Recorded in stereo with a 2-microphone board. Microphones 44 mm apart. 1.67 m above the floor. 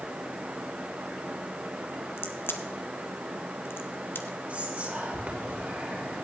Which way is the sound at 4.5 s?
35° right (ahead or behind).